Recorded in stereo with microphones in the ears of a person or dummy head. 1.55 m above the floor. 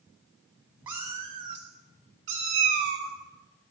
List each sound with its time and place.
0.9 s a cat meowing: 10° right (ahead or behind), 0.7 m; by 3.1 s 45° right (ahead or behind), 1.4 m